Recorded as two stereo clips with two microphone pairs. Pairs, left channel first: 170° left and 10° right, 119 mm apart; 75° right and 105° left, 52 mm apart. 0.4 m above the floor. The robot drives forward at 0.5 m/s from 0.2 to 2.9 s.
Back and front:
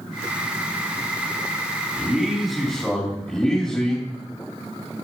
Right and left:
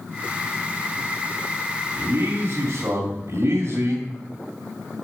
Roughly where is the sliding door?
No sliding door in this recording.